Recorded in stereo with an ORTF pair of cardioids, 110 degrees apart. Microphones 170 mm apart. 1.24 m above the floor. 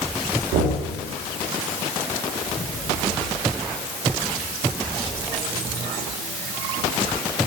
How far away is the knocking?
About 2.5 m.